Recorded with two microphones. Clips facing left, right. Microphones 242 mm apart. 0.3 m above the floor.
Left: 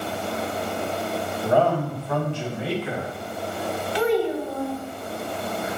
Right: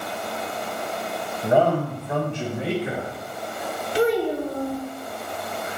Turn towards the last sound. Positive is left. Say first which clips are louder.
# right 1 dB
turn(degrees=-45)  # may be behind; listen again after turning